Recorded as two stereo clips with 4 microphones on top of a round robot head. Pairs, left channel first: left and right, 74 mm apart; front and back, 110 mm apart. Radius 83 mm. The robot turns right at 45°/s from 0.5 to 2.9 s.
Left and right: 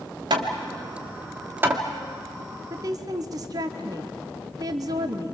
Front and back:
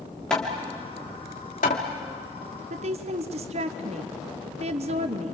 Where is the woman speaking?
150° right, 1.1 m; by 5.3 s 140° right, 1.1 m.